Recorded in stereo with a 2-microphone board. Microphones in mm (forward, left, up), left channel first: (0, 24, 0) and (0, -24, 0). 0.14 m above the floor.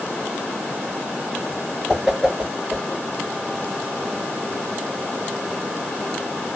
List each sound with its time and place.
1.9 s a whoosh: 10° right (ahead or behind), 1.2 m